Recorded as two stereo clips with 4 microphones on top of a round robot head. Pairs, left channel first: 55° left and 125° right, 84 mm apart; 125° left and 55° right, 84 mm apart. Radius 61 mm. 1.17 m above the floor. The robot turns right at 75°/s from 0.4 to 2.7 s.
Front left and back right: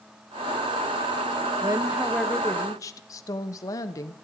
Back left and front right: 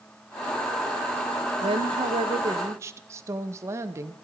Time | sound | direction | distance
1.6 | a woman speaking | 80° right | 0.9 m